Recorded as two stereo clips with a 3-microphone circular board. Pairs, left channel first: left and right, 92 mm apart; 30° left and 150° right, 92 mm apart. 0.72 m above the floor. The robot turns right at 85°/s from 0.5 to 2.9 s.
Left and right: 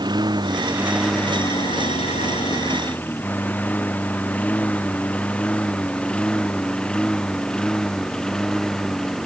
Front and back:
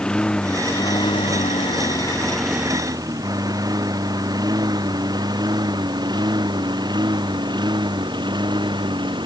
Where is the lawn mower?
50° right; by 9.2 s 175° left.